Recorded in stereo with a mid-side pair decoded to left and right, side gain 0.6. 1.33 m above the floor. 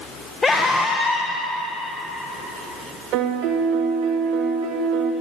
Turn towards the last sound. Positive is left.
turn(degrees=-65)